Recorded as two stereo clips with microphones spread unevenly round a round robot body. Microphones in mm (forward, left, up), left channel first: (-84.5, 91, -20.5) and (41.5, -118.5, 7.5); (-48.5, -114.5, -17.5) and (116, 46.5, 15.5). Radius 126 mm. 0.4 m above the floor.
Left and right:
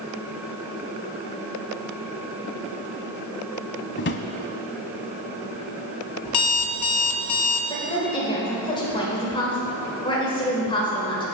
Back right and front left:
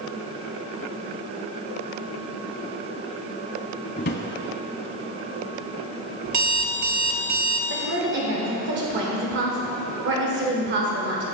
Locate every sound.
4.0 s a drawer: 170° left, 0.6 m
6.2 s an alarm clock: 100° left, 0.6 m
7.7 s a woman speaking: 65° left, 1.3 m